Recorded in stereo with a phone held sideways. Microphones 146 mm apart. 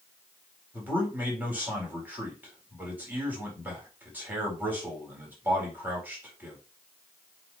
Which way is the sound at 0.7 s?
10° right (ahead or behind).